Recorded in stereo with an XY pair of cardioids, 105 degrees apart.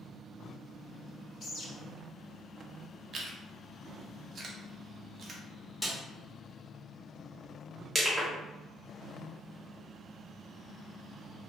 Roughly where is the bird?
Ahead left.